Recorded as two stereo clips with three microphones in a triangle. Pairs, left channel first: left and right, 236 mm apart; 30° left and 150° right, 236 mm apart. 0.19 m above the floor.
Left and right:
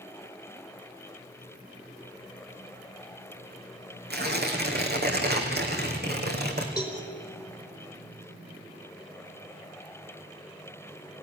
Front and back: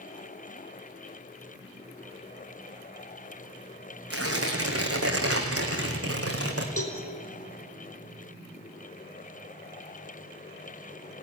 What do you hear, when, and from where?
4.1 s tearing paper: 135° right, 3.5 m
6.8 s a cowbell: 15° left, 4.5 m